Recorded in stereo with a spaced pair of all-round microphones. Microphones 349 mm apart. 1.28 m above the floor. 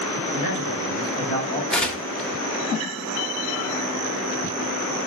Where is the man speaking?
55° right (ahead or behind), 3 m; by 1.6 s 75° right (ahead or behind), 4 m.